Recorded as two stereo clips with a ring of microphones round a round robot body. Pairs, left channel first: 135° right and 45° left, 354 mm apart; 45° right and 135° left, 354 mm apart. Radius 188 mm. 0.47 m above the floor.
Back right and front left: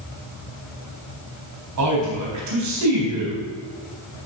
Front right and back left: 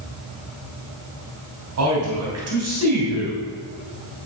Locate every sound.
1.8 s a man speaking: 85° left, 3.5 m